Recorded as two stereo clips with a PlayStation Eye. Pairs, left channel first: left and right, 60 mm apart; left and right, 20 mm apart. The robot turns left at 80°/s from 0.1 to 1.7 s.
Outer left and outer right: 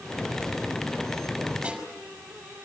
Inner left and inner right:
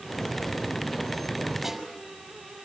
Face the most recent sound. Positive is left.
turn(degrees=-15)  # may be behind; listen again after turning